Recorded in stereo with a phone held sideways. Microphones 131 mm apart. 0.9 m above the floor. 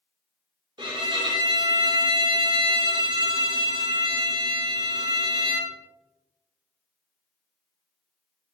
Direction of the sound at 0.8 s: 35° right (ahead or behind).